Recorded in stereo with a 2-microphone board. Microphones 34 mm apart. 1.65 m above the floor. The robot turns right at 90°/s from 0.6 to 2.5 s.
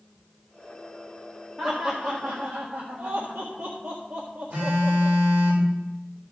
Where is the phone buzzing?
65° right (ahead or behind), 5.5 m.